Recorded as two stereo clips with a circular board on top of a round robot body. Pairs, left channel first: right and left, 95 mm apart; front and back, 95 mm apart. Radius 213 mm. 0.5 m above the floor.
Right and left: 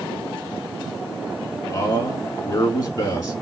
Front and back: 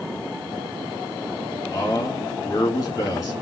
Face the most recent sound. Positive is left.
turn(degrees=-50)